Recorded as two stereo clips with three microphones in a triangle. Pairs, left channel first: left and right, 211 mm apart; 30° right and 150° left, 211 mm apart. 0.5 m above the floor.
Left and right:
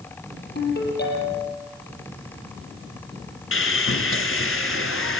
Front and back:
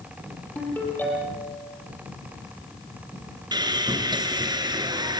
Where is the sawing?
80° left, 2 m.